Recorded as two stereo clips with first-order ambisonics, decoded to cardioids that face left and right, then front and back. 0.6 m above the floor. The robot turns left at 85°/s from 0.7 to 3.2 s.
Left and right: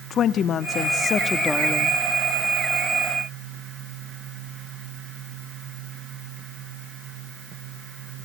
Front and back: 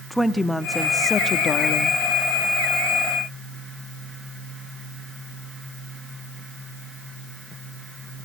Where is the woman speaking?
90° left, 0.7 m; by 2.0 s 20° right, 0.7 m.